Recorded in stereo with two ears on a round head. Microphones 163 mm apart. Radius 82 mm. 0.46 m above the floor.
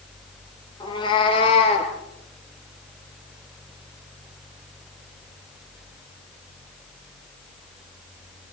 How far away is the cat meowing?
About 4.5 m.